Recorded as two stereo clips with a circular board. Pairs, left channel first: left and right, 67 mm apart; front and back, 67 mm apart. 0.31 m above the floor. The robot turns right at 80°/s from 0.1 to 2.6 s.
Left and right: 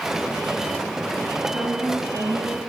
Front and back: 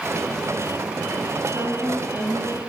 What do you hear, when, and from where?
1.5 s a woman speaking: straight behind, 1.8 m; by 2.6 s 95° right, 1.8 m